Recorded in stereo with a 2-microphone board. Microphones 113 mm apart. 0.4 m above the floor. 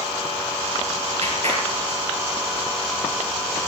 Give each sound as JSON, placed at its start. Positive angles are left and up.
{"t": 1.2, "sound": "a clap", "side_deg": -70, "distance_m": 5.5}